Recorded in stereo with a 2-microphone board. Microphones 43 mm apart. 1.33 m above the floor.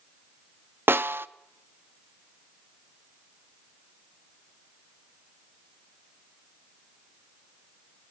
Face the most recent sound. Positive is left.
turn(degrees=-60)  # may be behind; listen again after turning